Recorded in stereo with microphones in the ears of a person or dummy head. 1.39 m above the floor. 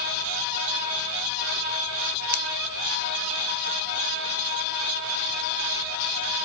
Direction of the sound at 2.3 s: 60° left (ahead or behind).